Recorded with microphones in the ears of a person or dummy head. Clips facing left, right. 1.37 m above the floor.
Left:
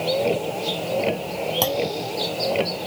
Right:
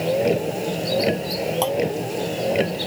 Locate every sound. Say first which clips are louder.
0.0 s a vehicle: right 2 dB; 20° right (ahead or behind)
1.6 s a clunk: right 2 dB; 25° left (ahead or behind)